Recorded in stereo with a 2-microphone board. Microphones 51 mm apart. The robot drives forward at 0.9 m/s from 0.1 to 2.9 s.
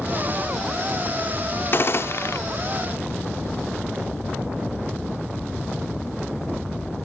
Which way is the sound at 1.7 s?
45° left (ahead or behind).